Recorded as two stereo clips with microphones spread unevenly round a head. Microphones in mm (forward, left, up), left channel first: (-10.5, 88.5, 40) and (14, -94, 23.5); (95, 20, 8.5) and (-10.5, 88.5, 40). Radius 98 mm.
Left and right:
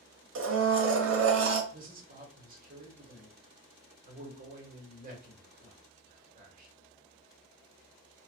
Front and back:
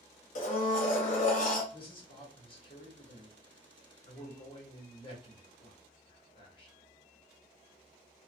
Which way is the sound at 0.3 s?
70° right.